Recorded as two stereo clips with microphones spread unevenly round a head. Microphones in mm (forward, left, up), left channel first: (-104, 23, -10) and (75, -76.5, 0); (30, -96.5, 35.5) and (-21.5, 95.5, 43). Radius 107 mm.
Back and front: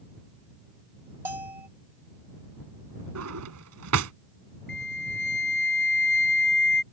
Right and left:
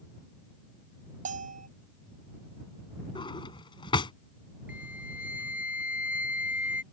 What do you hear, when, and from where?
1.2 s a bell: 50° left
3.1 s a drawer: 5° right
4.7 s a flute: 170° right